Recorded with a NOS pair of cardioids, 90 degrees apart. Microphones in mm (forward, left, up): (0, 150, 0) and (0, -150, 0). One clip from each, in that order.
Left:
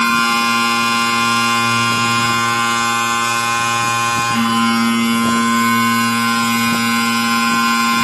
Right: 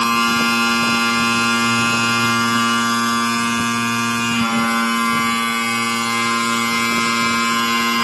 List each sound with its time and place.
0.0 s a machine running: 65° left, 3.5 m